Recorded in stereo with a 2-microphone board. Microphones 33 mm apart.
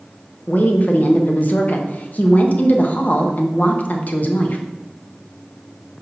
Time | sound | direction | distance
0.5 | a woman speaking | 50° left (ahead or behind) | 1.0 m